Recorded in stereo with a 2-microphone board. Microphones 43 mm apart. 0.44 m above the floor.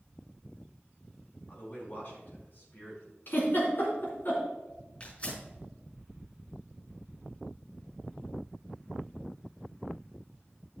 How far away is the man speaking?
About 4 m.